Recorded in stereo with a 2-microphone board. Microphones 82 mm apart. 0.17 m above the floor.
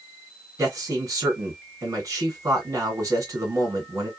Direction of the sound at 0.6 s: 40° right (ahead or behind).